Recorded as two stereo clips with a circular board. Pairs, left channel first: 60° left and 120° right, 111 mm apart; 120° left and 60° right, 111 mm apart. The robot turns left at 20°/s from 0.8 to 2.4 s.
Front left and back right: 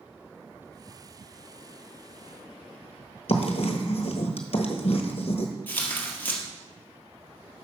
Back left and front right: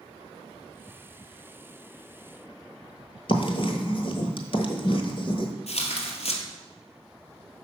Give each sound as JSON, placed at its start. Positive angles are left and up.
{"t": 3.3, "sound": "writing", "azimuth_deg": 85, "distance_m": 1.1}
{"t": 5.7, "sound": "tearing paper", "azimuth_deg": 135, "distance_m": 1.5}